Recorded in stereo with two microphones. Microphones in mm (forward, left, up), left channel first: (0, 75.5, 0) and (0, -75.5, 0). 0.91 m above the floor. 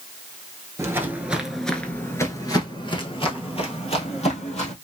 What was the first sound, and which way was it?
Footsteps, 20° right (ahead or behind).